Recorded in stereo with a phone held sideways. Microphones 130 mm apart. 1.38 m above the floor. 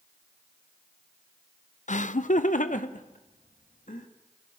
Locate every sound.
1.9 s laughter: 70° left (ahead or behind), 0.5 m; by 4.1 s 80° left, 2.5 m